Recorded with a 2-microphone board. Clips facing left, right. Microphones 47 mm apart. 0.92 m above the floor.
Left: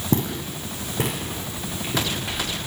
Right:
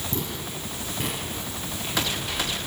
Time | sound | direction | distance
0.1 | footsteps | 55° left (ahead or behind) | 2.5 m